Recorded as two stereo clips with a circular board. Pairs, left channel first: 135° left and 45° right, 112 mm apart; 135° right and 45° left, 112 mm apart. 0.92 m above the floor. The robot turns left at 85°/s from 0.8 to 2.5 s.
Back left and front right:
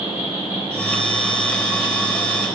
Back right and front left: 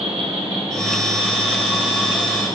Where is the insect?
25° left, 4 m; by 2.5 s 120° right, 4 m.